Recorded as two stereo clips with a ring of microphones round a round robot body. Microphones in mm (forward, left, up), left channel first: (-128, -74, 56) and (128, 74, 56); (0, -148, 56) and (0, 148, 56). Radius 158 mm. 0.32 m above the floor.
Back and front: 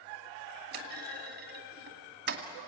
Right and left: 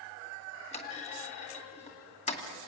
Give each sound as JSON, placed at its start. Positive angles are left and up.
{"t": 0.7, "sound": "a clunk", "azimuth_deg": -25, "distance_m": 2.0}